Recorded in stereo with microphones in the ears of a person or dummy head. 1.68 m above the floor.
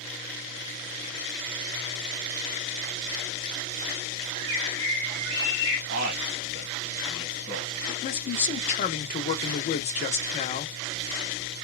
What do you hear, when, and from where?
4.3 s a bird: 25° right (ahead or behind), 1.9 m
5.9 s a man speaking: 55° right (ahead or behind), 1.2 m
7.9 s a man speaking: 40° left (ahead or behind), 0.5 m